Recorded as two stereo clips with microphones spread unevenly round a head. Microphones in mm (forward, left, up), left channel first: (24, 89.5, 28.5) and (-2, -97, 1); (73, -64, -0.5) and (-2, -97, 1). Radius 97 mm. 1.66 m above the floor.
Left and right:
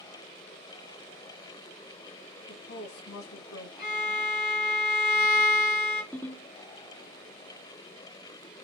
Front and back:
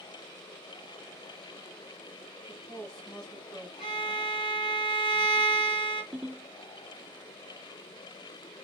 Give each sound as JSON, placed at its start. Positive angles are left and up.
{"t": 2.5, "sound": "a woman speaking", "azimuth_deg": 105, "distance_m": 2.5}
{"t": 3.8, "sound": "a violin", "azimuth_deg": 45, "distance_m": 3.0}
{"t": 6.1, "sound": "a ringtone", "azimuth_deg": 140, "distance_m": 1.2}